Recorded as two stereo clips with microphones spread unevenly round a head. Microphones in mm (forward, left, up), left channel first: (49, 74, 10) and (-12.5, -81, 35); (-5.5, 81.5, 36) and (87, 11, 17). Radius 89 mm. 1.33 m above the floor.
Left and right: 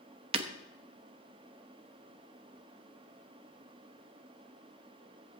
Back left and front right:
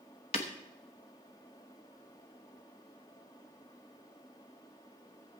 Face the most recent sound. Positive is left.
turn(degrees=-165)